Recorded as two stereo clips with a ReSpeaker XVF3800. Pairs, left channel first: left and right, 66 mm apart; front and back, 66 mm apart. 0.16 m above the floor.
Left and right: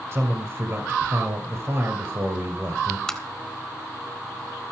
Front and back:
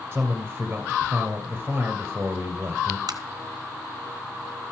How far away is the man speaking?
About 2.0 m.